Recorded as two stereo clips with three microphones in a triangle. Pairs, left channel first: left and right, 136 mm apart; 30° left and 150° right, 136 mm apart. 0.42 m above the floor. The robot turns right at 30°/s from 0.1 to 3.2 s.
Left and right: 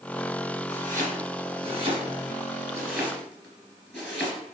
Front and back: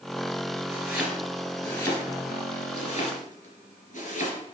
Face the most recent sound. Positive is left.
turn(degrees=0)